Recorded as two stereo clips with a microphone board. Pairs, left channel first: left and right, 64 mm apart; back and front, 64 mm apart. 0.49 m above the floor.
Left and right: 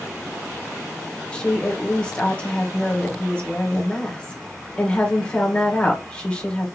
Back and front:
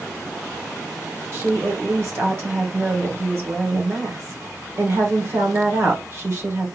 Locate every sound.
1.3 s a woman speaking: 25° left, 1.3 m